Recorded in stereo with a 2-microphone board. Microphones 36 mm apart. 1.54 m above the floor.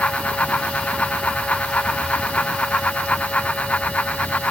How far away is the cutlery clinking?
No cutlery clinking in this recording.